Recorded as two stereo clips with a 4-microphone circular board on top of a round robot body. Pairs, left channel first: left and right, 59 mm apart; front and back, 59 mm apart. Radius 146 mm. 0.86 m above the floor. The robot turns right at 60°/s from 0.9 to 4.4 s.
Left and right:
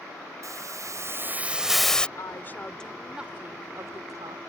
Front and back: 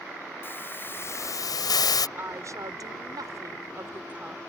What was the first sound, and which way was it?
A hiss, 55° right.